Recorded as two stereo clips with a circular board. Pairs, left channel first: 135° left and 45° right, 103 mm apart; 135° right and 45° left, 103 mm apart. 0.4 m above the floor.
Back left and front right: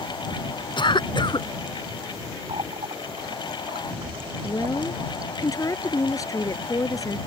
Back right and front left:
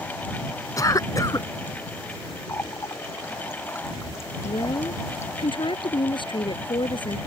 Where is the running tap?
70° right.